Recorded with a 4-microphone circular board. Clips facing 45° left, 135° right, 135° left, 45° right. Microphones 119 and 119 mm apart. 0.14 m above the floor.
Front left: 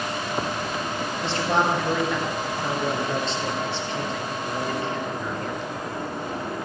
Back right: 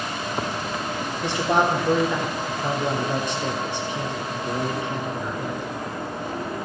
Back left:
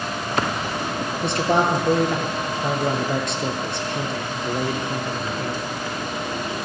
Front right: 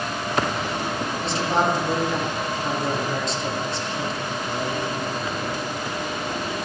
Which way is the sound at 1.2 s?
150° left.